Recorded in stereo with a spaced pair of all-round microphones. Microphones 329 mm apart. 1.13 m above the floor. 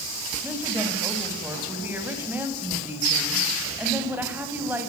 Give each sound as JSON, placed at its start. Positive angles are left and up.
{"t": 0.4, "sound": "a woman speaking", "side_deg": -5, "distance_m": 7.0}